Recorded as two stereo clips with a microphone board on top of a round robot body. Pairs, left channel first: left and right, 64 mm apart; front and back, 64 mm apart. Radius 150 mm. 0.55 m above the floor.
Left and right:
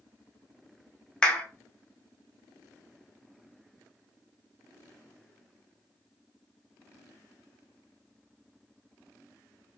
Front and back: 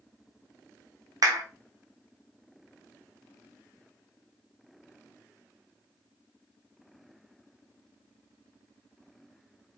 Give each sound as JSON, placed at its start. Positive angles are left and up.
{"t": 1.2, "sound": "a clap", "azimuth_deg": 170, "distance_m": 1.2}